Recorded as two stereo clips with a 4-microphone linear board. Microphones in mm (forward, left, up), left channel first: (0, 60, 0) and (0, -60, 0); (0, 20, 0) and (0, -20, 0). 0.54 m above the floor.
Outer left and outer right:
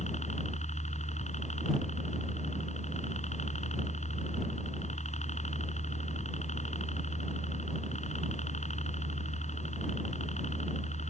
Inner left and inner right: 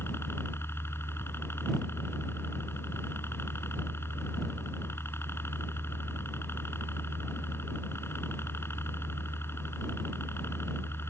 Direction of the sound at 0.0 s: 75° left (ahead or behind).